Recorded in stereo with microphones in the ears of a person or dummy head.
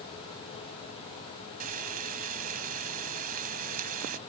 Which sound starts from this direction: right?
Frying, at 1.6 s.